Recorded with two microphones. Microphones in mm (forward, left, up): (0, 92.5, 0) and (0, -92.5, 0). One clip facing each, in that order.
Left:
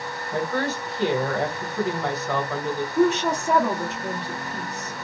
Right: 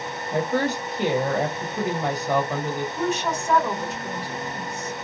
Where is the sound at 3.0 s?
70° left (ahead or behind), 1.1 m.